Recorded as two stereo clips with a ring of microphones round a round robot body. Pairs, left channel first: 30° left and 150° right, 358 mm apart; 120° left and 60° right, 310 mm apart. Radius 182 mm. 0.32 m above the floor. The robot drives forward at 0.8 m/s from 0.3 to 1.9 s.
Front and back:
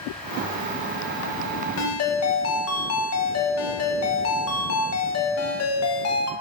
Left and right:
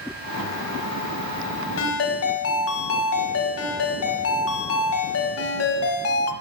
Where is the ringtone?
75° left, 1.3 m; by 6.3 s 80° left, 1.3 m.